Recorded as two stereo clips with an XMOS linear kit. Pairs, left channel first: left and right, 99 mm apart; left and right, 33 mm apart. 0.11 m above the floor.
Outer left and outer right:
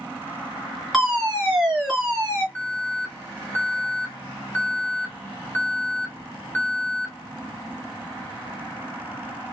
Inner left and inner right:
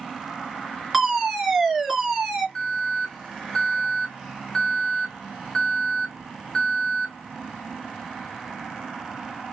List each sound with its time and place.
0.9 s a fire alarm: centre (ahead or behind), 2.5 m
2.5 s an alarm: 15° left (ahead or behind), 1.3 m